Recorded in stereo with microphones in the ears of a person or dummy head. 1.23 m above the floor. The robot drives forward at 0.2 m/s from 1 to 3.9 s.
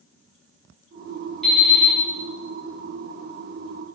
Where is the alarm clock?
Centre (ahead or behind), 1.7 m.